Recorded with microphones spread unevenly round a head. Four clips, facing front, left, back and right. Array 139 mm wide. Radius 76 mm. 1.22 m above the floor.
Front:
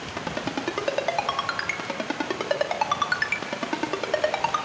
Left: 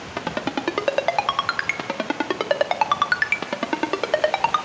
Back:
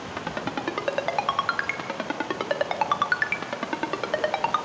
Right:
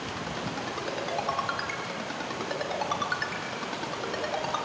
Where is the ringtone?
80° left, 1.6 m.